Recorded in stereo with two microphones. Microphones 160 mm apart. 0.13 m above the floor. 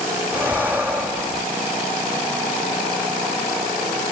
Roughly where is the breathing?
Centre.